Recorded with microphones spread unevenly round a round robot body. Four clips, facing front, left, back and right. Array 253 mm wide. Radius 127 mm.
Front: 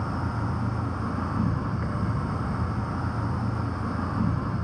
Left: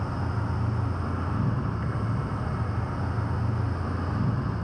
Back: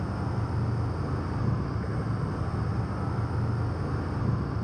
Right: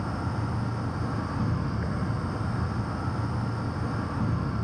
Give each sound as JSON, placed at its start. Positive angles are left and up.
{"t": 0.0, "sound": "an insect", "azimuth_deg": 15, "distance_m": 3.5}